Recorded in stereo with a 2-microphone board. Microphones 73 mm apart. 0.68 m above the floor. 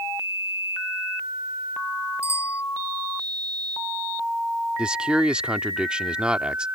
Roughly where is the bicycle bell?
Left.